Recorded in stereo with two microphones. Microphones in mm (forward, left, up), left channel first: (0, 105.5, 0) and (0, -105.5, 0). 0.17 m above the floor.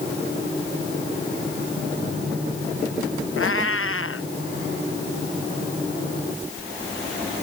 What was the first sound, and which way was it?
A cat meowing, 85° left.